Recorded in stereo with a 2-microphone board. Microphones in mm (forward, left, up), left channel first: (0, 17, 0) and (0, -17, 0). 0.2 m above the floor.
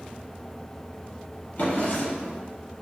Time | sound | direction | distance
1.6 | a drawer | 50° left (ahead or behind) | 1.2 m